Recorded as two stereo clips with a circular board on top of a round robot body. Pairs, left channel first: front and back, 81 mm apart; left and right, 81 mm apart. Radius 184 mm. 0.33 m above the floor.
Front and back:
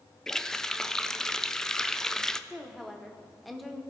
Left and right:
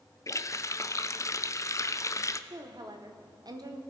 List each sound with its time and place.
0.3 s a running tap: 80° left, 0.6 m
2.5 s a woman speaking: 90° right, 1.3 m